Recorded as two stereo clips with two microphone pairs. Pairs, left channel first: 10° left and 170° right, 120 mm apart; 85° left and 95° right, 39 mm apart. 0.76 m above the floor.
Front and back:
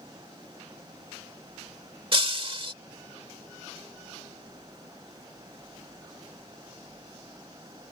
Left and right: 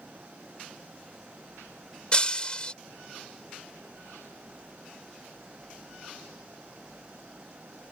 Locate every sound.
2.1 s breaking glass: 145° left